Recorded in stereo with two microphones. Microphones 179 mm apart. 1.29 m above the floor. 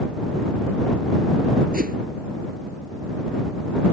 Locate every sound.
1.7 s a whoosh: 55° right (ahead or behind)